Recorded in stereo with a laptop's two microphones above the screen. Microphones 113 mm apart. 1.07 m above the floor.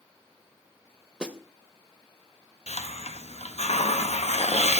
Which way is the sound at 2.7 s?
75° left (ahead or behind).